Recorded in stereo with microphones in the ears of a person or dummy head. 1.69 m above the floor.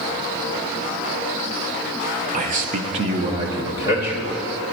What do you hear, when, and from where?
2.3 s a man speaking: 35° right (ahead or behind), 0.9 m; by 4.4 s 10° right (ahead or behind), 2.0 m